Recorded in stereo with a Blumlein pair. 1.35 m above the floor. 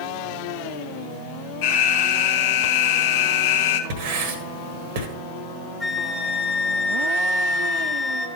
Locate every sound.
1.6 s an alarm: 50° left, 0.9 m
3.9 s writing: 50° right, 1.5 m
5.8 s a flute: 10° left, 1.2 m